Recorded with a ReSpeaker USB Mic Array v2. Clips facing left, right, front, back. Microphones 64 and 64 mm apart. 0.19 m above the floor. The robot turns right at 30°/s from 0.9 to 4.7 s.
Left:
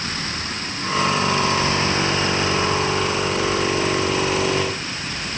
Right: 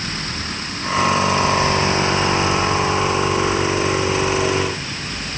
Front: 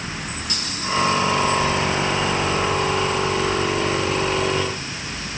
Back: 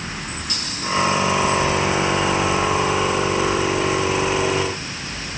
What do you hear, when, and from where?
Only background noise.